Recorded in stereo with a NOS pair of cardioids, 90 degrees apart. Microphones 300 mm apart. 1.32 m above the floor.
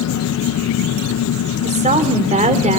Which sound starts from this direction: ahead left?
An engine running, at 0.0 s.